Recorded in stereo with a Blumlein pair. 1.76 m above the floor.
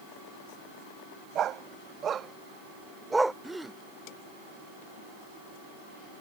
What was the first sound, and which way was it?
A dog barking, 30° right.